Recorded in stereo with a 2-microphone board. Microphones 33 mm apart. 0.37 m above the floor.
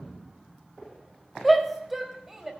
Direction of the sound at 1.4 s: Centre (ahead or behind).